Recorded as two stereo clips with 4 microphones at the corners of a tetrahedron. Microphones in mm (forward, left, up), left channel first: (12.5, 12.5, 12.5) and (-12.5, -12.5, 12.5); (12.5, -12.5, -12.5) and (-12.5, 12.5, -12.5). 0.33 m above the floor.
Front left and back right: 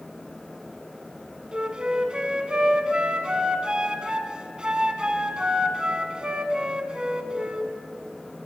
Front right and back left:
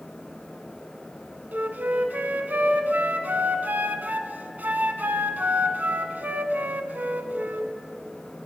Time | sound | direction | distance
1.5 | a flute | 160° left | 0.8 m